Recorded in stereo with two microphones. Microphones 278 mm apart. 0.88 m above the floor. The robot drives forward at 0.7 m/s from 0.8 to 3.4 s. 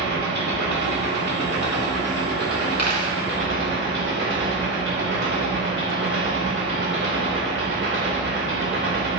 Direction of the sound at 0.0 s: 85° right.